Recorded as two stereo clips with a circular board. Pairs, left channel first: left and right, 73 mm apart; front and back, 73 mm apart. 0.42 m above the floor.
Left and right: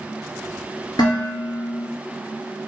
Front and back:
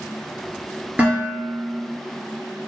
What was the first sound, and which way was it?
Dishes clattering, 110° left.